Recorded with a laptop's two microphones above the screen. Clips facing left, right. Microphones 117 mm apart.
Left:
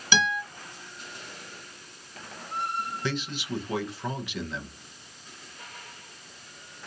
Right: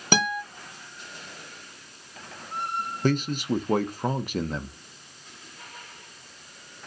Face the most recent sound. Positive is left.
turn(degrees=-45)  # may be behind; listen again after turning